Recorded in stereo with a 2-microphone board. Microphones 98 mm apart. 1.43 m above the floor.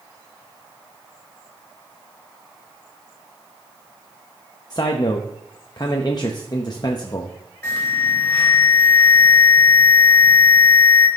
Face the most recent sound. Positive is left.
turn(degrees=20)  # may be behind; listen again after turning